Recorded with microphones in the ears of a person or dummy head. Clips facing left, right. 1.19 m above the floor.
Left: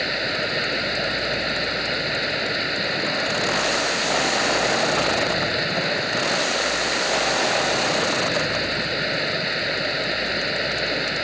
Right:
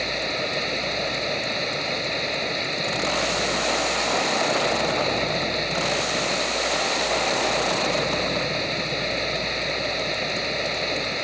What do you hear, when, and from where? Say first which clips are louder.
0.0 s running water: left 1 dB; 10° left (ahead or behind)